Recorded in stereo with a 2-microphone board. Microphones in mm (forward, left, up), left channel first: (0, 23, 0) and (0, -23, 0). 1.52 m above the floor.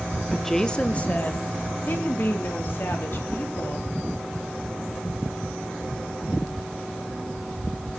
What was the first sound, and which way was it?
A woman speaking, 5° right (ahead or behind).